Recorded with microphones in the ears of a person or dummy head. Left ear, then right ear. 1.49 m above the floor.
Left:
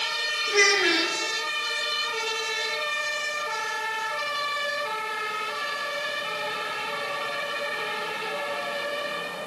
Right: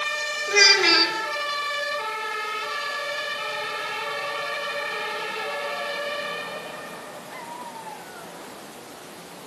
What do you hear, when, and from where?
0.5 s a child speaking: 70° right (ahead or behind), 3 m